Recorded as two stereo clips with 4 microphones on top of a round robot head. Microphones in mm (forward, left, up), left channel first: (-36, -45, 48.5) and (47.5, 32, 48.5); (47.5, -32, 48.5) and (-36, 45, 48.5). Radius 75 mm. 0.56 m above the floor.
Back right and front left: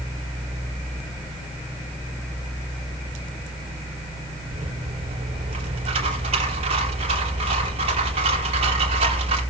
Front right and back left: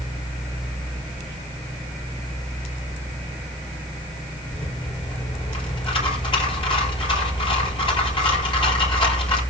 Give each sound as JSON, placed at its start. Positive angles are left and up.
{"t": 4.5, "sound": "a rattle", "azimuth_deg": 5, "distance_m": 4.5}